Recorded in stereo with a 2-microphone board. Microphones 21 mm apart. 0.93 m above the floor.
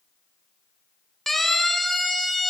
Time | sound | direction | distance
1.3 | a siren | 10° left (ahead or behind) | 3 m